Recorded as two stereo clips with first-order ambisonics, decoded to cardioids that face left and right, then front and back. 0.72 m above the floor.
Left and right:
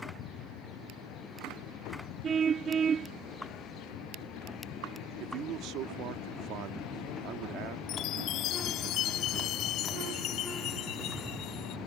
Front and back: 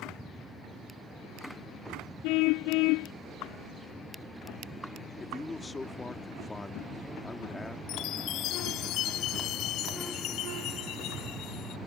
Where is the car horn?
25° right.